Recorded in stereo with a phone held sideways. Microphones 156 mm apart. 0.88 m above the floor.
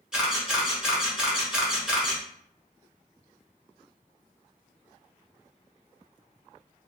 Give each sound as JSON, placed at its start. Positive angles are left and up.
{"t": 0.1, "sound": "a camera shutter", "side_deg": -5, "distance_m": 0.9}